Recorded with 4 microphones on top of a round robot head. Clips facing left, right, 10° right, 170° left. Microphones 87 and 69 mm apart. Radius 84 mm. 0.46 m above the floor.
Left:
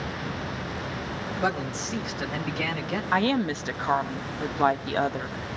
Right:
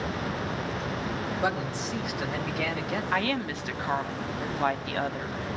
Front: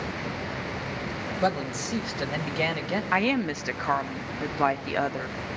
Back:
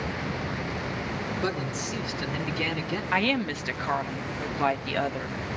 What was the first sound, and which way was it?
A man speaking, 5° right.